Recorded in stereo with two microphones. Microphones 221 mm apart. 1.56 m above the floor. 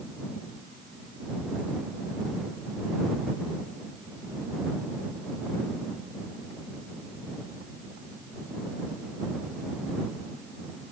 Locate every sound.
Only background noise.